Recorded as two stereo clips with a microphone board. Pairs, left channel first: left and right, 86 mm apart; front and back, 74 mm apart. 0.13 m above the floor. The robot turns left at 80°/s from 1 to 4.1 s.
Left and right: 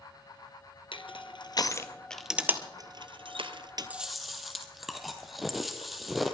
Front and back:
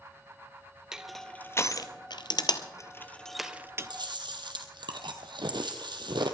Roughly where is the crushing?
Left.